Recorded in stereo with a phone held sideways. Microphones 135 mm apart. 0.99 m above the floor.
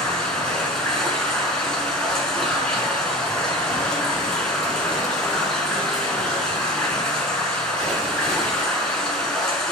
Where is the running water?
5° left (ahead or behind), 4.5 m.